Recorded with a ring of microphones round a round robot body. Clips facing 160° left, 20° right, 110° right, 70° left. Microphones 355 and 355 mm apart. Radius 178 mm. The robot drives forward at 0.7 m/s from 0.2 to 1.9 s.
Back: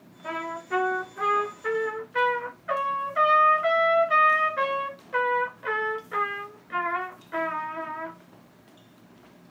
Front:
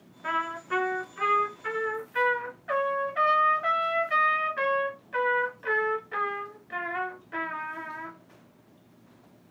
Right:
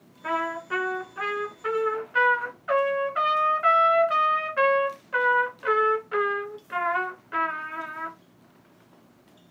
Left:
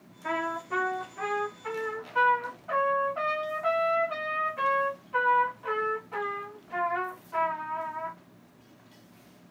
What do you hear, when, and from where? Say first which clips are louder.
0.2 s a trumpet: back 2 dB, right 2 dB; 60° right, 1.3 m; by 8.2 s 115° right, 1.2 m